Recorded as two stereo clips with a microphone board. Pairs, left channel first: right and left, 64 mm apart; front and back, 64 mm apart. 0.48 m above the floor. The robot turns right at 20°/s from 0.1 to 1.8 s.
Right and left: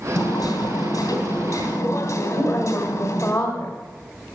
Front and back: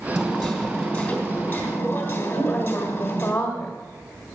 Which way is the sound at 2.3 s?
60° right.